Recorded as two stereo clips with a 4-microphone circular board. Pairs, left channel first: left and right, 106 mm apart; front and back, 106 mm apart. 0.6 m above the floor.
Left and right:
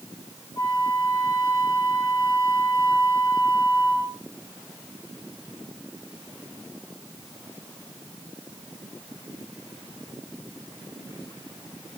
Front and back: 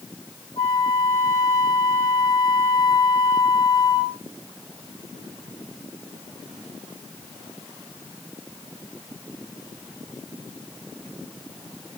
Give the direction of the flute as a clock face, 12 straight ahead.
11 o'clock.